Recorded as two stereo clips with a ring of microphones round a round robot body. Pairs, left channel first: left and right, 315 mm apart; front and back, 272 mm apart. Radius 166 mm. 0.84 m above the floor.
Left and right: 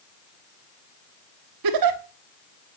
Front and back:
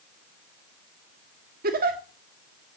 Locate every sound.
1.6 s a giggle: 115° right, 1.6 m